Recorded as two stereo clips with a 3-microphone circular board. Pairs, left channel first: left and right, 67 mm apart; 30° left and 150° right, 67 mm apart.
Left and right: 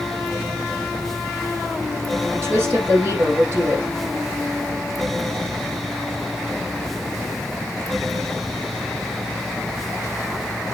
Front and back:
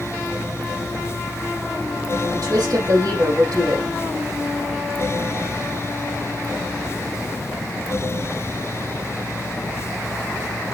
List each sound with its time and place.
2.3 s a woman speaking: 125° right, 4 m